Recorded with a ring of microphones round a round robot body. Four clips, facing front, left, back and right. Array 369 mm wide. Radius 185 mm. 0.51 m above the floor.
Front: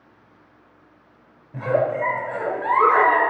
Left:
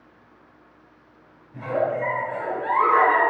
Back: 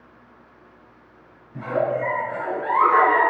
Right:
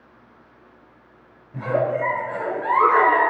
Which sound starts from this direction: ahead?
A giggle, at 1.5 s.